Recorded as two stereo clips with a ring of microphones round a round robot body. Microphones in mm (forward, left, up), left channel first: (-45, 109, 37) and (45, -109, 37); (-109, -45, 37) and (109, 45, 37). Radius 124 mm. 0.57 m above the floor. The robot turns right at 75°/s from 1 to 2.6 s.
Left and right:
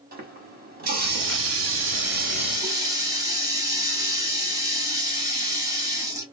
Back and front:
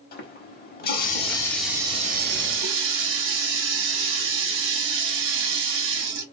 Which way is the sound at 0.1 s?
115° right.